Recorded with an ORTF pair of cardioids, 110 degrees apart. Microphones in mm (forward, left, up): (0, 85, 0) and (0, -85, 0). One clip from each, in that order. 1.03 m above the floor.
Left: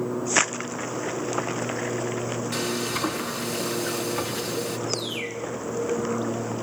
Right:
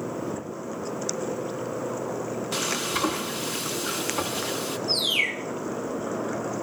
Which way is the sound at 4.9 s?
55° right.